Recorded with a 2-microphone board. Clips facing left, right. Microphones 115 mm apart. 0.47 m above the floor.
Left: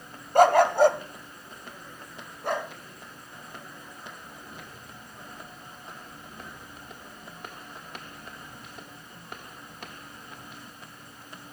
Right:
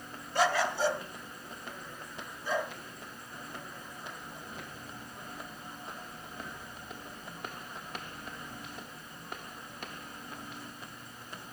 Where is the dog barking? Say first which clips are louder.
Left 11 dB; 50° left (ahead or behind), 0.7 m; by 2.7 s 65° left (ahead or behind), 2.5 m.